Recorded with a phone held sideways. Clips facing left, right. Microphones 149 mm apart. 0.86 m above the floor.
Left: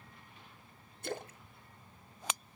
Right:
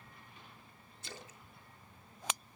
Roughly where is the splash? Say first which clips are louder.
Left 11 dB; left.